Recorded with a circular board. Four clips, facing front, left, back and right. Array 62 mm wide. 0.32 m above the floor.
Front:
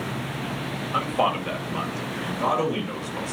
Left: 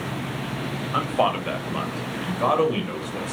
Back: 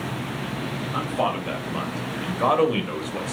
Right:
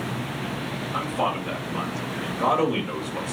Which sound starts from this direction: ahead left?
A man speaking, at 0.9 s.